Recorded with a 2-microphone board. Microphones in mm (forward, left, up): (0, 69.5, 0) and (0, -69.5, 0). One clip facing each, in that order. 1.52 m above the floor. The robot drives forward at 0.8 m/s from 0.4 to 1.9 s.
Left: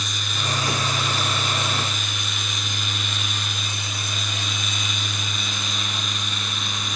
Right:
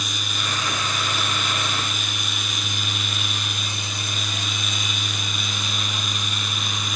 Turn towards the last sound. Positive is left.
No sound to turn to.